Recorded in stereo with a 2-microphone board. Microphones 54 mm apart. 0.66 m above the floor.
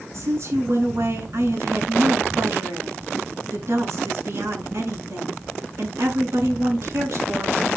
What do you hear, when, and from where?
0.1 s a woman speaking: 60° right (ahead or behind), 7 m